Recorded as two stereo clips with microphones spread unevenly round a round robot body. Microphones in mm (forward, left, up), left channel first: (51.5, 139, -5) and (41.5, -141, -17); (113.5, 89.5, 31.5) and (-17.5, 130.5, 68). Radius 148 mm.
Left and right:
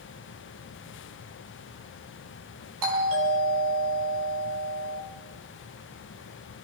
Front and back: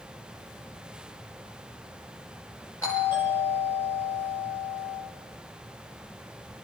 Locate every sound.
2.8 s a doorbell: 90° right, 10 m